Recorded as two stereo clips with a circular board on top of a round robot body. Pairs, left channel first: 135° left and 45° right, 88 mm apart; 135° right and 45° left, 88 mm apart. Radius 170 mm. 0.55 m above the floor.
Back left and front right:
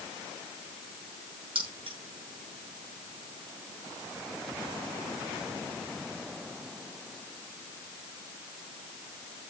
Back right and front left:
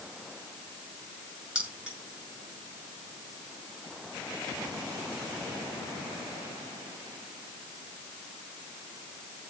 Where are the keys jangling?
35° right, 7.5 m.